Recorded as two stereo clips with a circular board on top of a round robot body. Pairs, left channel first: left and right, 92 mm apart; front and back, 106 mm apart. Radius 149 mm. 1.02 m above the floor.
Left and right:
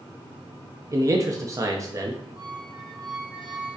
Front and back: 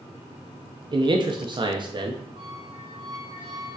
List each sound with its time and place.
0.9 s a man speaking: 140° right, 0.7 m
2.4 s a squeak: 135° right, 0.8 m